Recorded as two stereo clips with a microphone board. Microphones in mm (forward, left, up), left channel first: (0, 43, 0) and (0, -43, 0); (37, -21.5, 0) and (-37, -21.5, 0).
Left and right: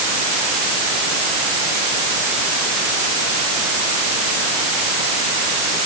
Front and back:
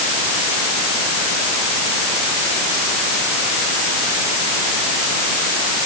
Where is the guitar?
No guitar in this recording.